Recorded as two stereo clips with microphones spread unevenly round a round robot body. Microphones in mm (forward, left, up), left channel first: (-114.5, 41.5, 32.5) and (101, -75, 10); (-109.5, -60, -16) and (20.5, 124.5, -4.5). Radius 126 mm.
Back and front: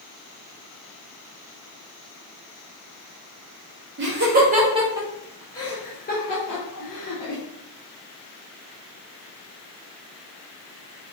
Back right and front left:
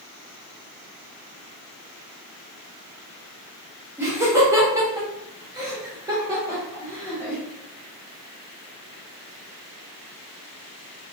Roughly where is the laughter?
Ahead right.